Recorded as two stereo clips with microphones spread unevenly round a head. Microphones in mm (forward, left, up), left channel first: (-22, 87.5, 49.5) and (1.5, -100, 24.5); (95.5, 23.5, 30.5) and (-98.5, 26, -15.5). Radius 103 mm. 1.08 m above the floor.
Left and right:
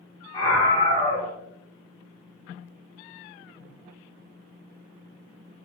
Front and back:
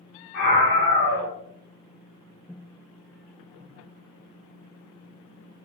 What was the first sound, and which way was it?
A scream, 25° left.